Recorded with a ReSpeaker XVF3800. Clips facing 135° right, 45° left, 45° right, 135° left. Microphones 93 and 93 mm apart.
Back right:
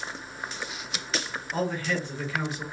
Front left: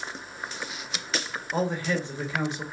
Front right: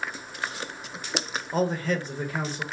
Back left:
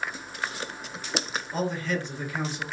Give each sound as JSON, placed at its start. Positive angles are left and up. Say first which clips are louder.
{"t": 1.5, "sound": "a man speaking", "louder": "front left 2 dB, front right 3 dB", "azimuth_deg": -15, "distance_m": 0.9}